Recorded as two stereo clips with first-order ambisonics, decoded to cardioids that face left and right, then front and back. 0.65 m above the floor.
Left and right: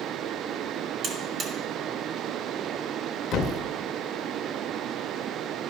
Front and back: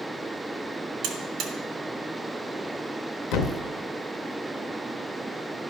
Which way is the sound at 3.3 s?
35° left.